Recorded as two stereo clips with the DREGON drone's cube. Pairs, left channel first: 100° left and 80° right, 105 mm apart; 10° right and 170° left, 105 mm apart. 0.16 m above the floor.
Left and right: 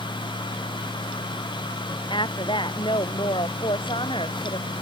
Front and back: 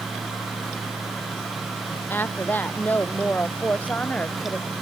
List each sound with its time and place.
2.1 s a woman speaking: 60° left; by 4.7 s 65° left